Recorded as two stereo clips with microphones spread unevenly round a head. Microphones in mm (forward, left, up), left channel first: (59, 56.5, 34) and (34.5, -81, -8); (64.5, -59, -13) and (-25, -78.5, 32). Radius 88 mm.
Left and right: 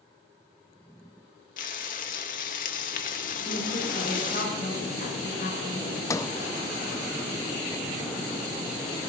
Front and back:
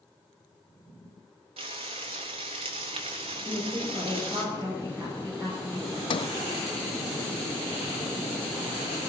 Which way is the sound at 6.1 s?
5° left.